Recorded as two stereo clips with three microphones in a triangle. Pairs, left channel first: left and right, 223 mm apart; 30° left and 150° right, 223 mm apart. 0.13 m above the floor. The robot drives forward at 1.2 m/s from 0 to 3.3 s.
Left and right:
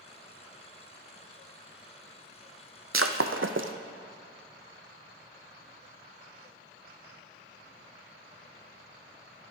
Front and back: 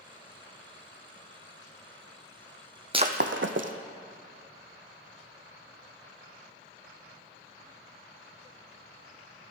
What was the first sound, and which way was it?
Breaking glass, 80° right.